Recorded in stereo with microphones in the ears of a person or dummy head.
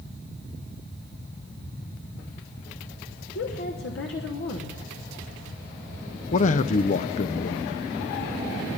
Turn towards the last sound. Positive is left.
turn(degrees=40)  # may be behind; listen again after turning